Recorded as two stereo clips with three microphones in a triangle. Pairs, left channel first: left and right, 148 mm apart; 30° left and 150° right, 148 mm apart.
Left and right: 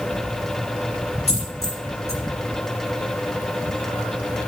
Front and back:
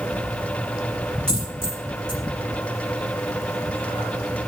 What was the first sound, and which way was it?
A dropped coin, 135° left.